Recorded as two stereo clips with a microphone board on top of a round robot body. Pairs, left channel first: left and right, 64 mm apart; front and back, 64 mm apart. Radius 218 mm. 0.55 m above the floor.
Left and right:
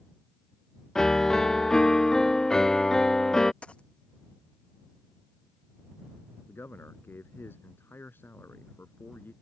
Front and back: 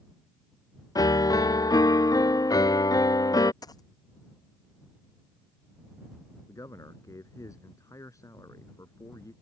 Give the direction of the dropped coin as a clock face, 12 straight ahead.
11 o'clock.